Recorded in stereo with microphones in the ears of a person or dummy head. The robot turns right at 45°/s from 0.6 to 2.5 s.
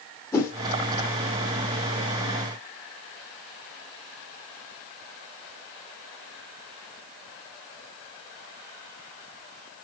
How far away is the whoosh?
About 3 m.